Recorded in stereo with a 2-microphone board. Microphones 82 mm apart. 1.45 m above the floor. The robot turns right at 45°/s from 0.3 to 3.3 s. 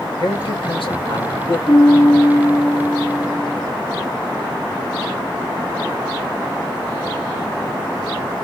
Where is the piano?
125° left, 1.6 m; by 3.7 s 160° right, 1.6 m.